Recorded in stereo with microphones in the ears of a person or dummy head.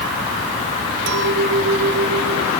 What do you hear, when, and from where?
1.1 s a clink: 75° right (ahead or behind), 3.5 m